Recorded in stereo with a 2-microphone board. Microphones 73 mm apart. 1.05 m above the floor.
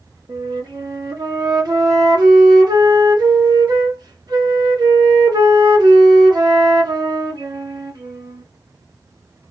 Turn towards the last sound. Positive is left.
turn(degrees=-70)  # may be behind; listen again after turning